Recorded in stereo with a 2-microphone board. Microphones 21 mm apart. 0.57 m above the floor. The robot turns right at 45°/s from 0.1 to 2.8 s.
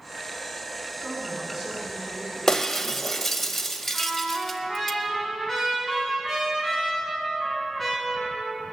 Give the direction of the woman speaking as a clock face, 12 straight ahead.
7 o'clock.